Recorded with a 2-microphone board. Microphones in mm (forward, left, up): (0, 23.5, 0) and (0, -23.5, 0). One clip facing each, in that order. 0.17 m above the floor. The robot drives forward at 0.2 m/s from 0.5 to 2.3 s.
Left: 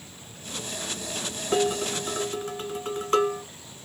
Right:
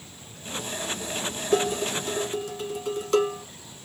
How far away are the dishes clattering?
About 1.1 m.